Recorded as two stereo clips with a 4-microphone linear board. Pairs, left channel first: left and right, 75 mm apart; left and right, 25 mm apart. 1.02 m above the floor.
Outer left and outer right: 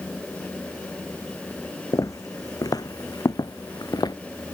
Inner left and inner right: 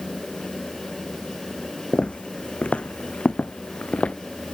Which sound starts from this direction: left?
Footsteps, at 1.9 s.